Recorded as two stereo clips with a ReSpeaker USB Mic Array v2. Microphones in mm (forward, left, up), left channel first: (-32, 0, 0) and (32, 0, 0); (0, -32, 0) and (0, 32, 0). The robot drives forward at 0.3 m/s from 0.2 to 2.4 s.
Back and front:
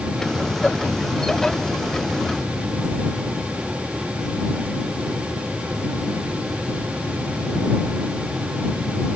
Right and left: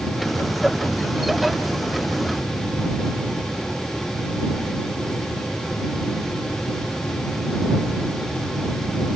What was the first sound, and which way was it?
Only background noise.